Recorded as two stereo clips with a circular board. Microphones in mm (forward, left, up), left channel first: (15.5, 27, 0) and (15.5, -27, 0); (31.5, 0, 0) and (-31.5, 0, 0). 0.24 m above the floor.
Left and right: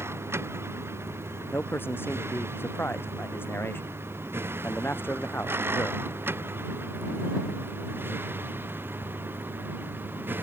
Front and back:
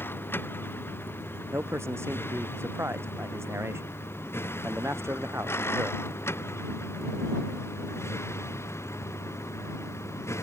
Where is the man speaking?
135° left.